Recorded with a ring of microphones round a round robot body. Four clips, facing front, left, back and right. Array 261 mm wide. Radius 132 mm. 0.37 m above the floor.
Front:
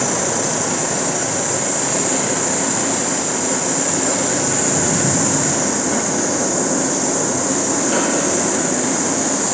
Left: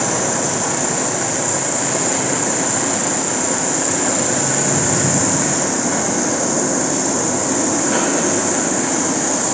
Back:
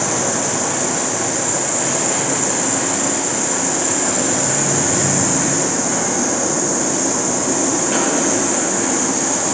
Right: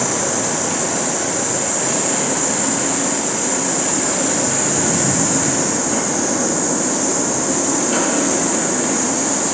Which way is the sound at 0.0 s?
100° left.